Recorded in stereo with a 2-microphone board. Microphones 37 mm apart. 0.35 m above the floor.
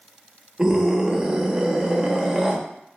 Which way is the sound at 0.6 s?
20° right (ahead or behind).